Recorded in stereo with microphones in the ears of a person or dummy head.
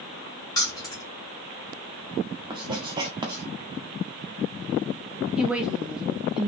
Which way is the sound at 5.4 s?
5° right (ahead or behind).